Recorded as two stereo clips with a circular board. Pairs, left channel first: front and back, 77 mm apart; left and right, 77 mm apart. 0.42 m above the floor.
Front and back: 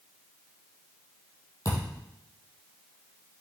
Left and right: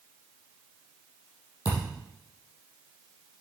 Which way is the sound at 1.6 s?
45° left.